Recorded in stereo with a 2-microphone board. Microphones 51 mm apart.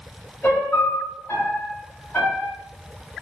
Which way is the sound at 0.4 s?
45° left (ahead or behind).